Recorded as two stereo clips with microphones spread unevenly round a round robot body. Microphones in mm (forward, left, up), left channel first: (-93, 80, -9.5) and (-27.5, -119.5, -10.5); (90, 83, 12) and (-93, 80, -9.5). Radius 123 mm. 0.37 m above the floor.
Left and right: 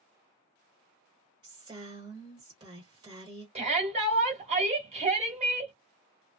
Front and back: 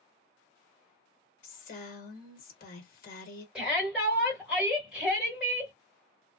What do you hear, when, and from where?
1.4 s a woman speaking: 10° right, 1.3 m
3.5 s a shout: 105° right, 1.6 m